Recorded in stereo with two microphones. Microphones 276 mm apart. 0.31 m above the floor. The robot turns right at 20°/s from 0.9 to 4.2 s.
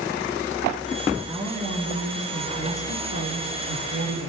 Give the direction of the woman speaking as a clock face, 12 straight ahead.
5 o'clock.